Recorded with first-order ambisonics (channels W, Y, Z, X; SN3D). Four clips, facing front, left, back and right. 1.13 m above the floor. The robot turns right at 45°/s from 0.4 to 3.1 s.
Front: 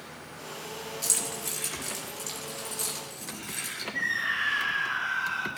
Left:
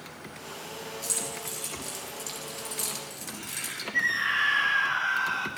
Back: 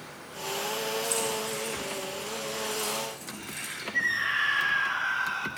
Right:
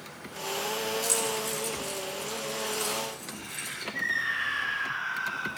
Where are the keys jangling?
10° right, 6 m; by 3.8 s 85° left, 6 m.